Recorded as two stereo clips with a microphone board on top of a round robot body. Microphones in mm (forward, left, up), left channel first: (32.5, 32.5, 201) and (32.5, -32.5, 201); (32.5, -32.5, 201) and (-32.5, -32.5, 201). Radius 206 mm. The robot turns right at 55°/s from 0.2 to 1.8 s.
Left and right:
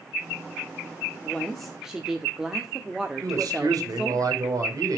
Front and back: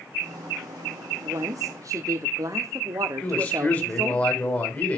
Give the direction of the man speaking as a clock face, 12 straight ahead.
2 o'clock.